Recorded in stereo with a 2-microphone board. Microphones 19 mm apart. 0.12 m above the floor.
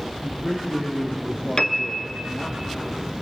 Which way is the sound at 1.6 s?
40° left (ahead or behind).